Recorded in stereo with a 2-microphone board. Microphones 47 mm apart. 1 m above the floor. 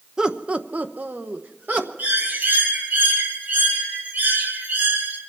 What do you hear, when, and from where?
0.2 s laughter: 15° right (ahead or behind), 0.8 m; by 1.9 s 40° right (ahead or behind), 1.3 m
2.0 s a bird: 45° right (ahead or behind), 2.5 m